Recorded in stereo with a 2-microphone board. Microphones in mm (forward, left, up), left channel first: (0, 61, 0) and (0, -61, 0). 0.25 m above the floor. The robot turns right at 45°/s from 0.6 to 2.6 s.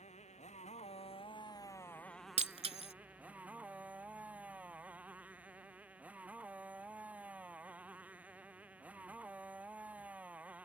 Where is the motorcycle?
100° left; by 10.7 s 170° right.